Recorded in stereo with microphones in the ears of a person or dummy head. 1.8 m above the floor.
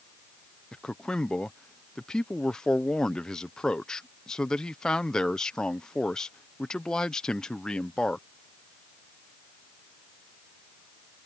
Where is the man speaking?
5° left (ahead or behind).